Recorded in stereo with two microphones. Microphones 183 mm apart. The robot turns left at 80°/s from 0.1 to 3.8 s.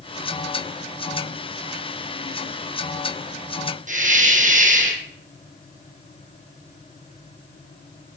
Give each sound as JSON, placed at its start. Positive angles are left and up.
{"t": 3.9, "sound": "a hiss", "side_deg": -45, "distance_m": 1.8}